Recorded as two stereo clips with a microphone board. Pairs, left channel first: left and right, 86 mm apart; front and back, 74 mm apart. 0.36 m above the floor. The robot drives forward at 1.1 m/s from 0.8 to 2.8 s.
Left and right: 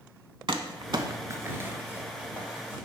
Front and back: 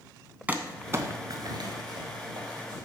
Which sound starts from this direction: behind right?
Crumpling, at 0.5 s.